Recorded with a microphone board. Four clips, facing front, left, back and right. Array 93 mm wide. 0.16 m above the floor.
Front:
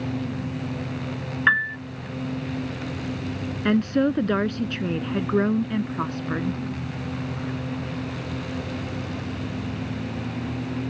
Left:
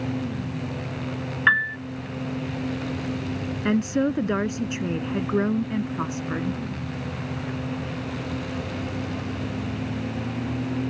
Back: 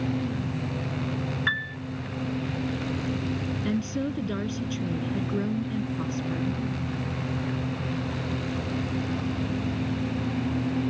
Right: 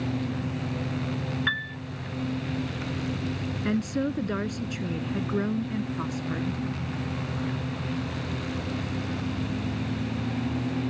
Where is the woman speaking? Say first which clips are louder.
Left 5 dB, front 10 dB; 25° left.